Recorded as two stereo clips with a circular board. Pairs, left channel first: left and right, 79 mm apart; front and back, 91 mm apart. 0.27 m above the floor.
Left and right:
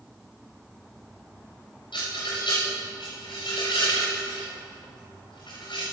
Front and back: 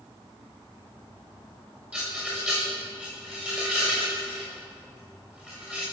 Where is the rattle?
105° left, 6.5 m.